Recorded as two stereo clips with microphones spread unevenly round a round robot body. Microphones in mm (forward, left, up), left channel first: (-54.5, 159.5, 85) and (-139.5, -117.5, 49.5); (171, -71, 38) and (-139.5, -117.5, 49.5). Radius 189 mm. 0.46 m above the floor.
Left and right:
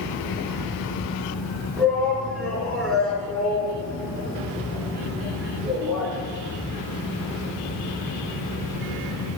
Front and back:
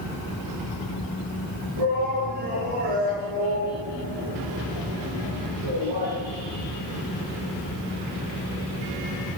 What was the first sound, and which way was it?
A shout, 160° left.